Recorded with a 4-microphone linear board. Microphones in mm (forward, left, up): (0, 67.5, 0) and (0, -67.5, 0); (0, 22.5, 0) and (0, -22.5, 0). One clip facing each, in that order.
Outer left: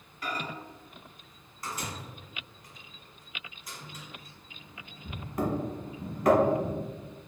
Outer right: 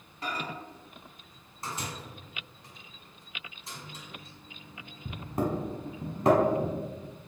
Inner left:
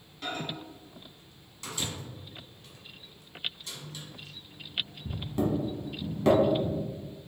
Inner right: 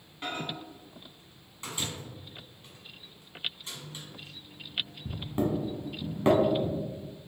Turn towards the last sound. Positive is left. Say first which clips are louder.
# even, even
turn(degrees=-30)  # may be behind; listen again after turning